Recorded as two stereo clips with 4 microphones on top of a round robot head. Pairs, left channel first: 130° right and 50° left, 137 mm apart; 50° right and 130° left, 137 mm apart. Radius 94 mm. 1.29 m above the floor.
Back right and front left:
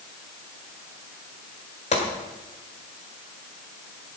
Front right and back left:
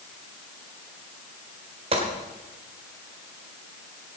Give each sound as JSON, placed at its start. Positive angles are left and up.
{"t": 1.9, "sound": "a gunshot", "azimuth_deg": -175, "distance_m": 1.9}